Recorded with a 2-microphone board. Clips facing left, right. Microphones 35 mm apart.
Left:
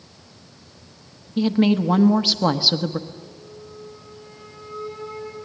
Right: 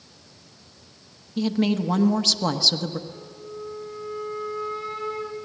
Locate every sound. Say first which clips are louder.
1.4 s a woman speaking: left 4 dB; 15° left (ahead or behind), 1.1 m
3.1 s a flute: right 2 dB; 60° right (ahead or behind), 5 m